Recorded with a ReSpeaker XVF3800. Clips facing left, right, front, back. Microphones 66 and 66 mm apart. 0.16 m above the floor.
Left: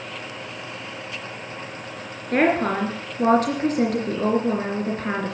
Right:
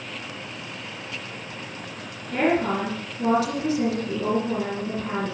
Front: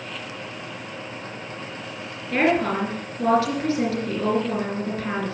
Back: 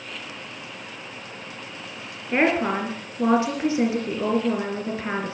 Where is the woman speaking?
110° left, 3 m.